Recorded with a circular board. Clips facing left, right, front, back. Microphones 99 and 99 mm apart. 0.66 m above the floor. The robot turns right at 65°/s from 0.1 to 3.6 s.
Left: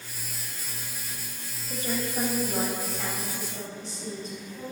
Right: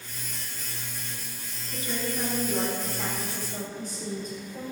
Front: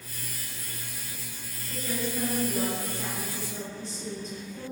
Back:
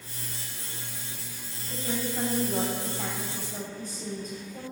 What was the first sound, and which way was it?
A woman speaking, 100° left.